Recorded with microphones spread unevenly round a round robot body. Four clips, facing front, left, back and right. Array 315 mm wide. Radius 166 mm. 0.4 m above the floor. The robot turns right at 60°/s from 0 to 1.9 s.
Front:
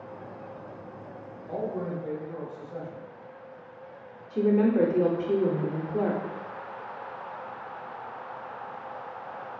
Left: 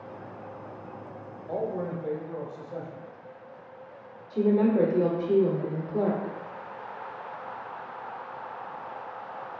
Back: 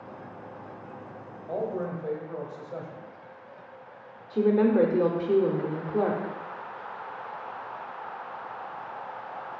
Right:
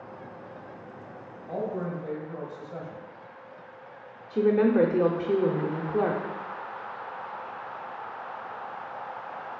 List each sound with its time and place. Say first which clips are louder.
1.5 s a man speaking: left 1 dB, back 1 dB; 125° left, 1.1 m; by 3.0 s 150° left, 1.1 m
4.3 s a woman speaking: right 1 dB, back 1 dB; 170° right, 0.8 m